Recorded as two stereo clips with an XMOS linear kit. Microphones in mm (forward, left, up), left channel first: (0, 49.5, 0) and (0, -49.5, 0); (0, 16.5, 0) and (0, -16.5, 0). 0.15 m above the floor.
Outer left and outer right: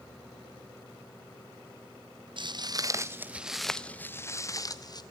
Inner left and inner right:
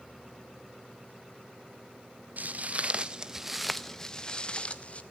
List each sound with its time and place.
2.4 s footsteps: 55° right (ahead or behind), 1.0 m; by 5.0 s 45° left (ahead or behind), 1.3 m